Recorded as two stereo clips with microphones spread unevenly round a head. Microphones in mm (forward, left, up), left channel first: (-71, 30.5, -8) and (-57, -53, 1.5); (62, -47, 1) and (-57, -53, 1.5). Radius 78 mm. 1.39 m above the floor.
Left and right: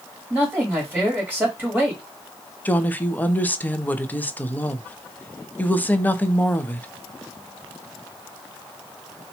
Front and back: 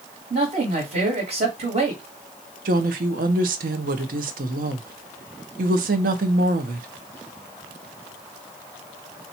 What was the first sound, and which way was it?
A man speaking, 150° right.